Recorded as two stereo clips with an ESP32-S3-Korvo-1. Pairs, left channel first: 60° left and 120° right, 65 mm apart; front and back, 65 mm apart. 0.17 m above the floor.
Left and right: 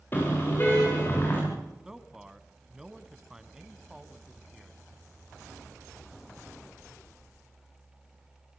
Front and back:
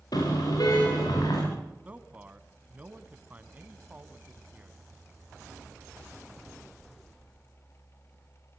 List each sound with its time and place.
0.1 s a car horn: 5° left, 10 m
1.9 s a man speaking: 175° left, 1.3 m